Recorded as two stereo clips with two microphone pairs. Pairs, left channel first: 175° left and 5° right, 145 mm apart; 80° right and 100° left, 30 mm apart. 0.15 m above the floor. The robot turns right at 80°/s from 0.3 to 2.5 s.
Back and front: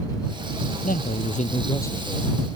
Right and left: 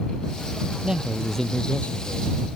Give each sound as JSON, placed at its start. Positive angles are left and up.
{"t": 0.8, "sound": "a man speaking", "azimuth_deg": 165}